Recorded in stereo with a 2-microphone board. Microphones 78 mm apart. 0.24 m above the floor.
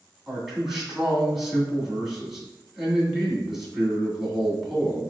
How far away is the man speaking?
About 2.0 m.